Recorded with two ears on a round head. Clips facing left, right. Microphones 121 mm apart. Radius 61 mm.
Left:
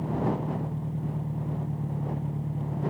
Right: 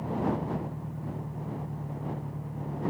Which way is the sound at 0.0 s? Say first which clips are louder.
Left 1 dB; 30° left (ahead or behind).